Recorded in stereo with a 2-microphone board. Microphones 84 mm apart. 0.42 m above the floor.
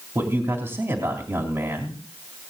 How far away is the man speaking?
About 3 m.